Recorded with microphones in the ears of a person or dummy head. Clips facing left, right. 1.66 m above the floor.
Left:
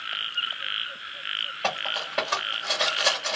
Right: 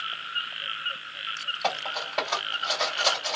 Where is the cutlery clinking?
15° left (ahead or behind), 1.3 m.